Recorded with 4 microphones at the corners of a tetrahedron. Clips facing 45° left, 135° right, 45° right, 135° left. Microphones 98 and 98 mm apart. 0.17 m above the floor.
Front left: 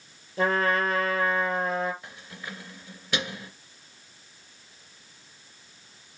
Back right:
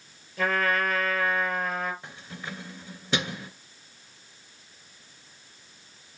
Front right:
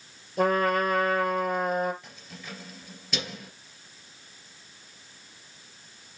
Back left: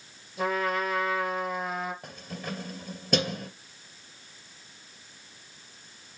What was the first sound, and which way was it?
A trumpet, 15° right.